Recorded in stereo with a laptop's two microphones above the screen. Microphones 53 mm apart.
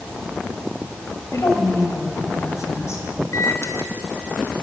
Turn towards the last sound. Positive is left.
turn(degrees=75)  # may be behind; listen again after turning